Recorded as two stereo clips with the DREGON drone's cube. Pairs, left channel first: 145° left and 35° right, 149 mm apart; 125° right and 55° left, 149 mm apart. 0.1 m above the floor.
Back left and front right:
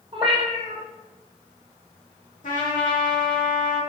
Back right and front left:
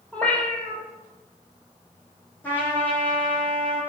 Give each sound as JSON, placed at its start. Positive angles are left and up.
{"t": 0.1, "sound": "a cat meowing", "azimuth_deg": -45, "distance_m": 1.0}
{"t": 2.4, "sound": "a trumpet", "azimuth_deg": 160, "distance_m": 1.7}